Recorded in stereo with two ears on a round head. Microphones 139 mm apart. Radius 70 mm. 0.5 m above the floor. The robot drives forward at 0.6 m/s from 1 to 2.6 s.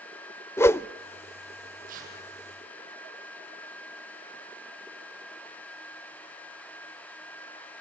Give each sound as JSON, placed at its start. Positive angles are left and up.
{"t": 0.6, "sound": "a whoosh", "side_deg": 20, "distance_m": 0.6}
{"t": 1.9, "sound": "tearing paper", "side_deg": -65, "distance_m": 6.5}